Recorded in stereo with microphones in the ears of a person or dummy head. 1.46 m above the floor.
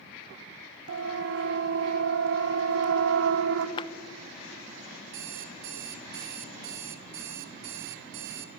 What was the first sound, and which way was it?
A siren, 60° right (ahead or behind).